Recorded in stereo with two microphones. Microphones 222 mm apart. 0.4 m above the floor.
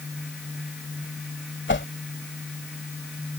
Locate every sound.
1.7 s a whoosh: 55° left (ahead or behind)